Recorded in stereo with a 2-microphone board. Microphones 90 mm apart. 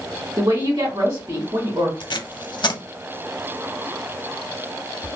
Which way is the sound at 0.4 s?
60° right (ahead or behind).